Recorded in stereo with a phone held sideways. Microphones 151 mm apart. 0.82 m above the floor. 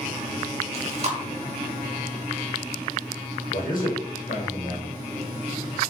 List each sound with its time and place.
0.7 s chewing: 45° right (ahead or behind), 0.7 m
3.5 s a man speaking: 65° left (ahead or behind), 1.0 m